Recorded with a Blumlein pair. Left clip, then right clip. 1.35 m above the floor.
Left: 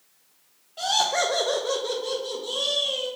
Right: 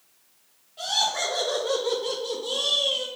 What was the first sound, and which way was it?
Laughter, 70° left.